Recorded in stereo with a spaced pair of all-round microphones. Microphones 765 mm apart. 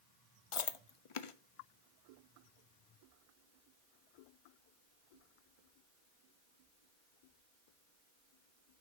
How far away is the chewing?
About 0.6 m.